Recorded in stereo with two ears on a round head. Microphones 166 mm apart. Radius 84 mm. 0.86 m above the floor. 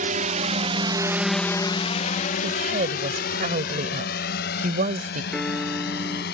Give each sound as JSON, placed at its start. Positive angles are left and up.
{"t": 0.0, "sound": "a drone", "side_deg": -45}
{"t": 2.4, "sound": "a woman speaking", "side_deg": -45}
{"t": 5.3, "sound": "a piano", "side_deg": 0}